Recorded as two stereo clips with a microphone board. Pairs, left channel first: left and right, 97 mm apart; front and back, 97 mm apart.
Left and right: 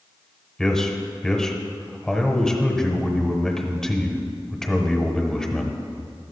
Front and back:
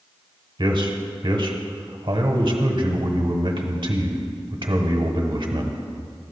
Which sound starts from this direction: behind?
A man speaking, at 0.6 s.